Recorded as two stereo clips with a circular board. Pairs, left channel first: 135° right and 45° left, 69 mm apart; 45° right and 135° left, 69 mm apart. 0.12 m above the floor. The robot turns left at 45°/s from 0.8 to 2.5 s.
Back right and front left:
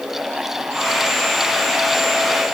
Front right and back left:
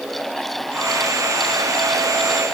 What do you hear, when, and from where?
Only background noise.